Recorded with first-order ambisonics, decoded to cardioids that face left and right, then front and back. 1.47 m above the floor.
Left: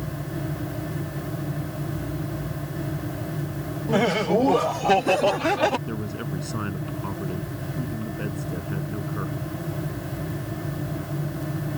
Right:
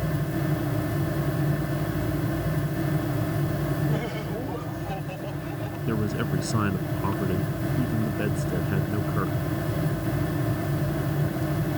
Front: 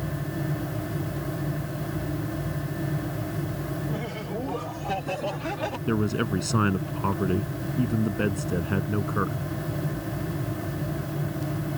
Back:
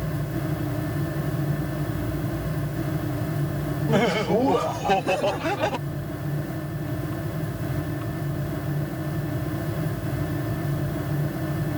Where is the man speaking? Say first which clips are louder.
Right 4 dB, front 7 dB; 15° right.